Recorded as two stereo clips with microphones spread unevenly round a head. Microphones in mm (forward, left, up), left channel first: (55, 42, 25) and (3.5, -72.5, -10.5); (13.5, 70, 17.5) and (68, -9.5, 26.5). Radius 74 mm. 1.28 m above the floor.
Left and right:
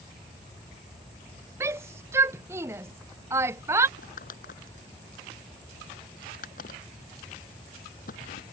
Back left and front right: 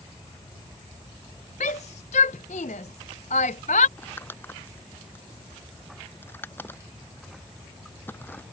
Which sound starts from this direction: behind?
A shout, at 1.6 s.